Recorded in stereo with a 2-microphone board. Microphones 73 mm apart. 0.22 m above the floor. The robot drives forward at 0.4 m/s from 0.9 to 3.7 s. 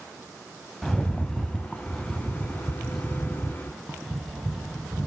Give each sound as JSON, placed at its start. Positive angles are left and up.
{"t": 0.8, "sound": "a rattle", "side_deg": 5, "distance_m": 0.6}